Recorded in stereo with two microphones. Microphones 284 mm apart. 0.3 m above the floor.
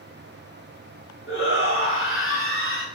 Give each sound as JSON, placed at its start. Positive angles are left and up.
{"t": 1.3, "sound": "a shout", "side_deg": 45, "distance_m": 3.5}